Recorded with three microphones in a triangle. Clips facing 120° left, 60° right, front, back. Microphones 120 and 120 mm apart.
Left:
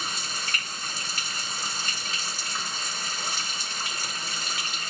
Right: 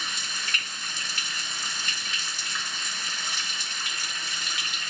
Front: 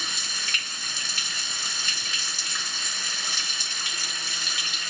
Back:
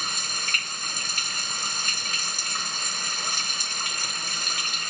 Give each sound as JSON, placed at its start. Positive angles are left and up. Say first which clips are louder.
{"t": 0.0, "sound": "running water", "louder": "left 2 dB, back 3 dB", "azimuth_deg": 160, "distance_m": 1.7}